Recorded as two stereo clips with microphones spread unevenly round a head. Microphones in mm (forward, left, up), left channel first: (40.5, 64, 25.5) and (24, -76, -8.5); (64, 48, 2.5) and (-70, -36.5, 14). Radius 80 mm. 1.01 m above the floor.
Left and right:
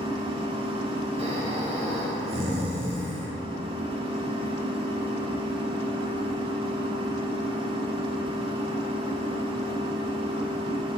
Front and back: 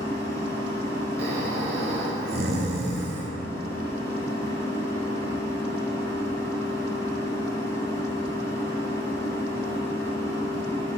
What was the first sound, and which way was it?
A machine running, 40° right.